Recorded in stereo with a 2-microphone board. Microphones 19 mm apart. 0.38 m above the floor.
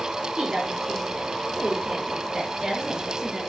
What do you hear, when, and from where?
0.4 s a woman speaking: 50° right (ahead or behind), 5.5 m; by 3.4 s 25° right (ahead or behind), 5.5 m